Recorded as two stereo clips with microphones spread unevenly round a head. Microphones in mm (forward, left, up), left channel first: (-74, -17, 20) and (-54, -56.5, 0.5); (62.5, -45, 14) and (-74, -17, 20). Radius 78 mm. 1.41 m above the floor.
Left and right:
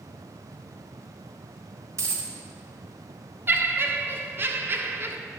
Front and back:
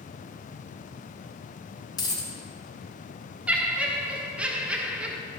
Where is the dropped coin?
60° right, 1.1 m.